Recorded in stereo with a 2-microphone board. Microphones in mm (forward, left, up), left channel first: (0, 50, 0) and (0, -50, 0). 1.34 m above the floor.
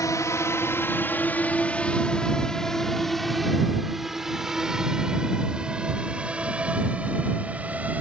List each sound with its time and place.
0.0 s a drone: 35° left (ahead or behind); by 8.0 s 15° right (ahead or behind)